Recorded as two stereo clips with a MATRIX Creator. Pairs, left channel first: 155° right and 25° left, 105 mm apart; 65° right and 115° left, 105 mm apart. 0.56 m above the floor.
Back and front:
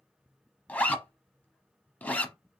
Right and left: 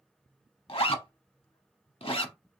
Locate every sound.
0.7 s a zipper: 85° right, 0.7 m